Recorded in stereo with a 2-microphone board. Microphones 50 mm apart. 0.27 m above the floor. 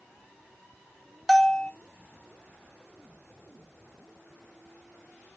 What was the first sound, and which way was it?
A bell, centre (ahead or behind).